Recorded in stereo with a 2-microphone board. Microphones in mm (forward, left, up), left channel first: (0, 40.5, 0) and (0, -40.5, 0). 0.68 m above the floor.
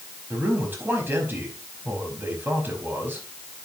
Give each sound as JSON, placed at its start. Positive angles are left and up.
{"t": 0.3, "sound": "a man speaking", "side_deg": -30, "distance_m": 4.5}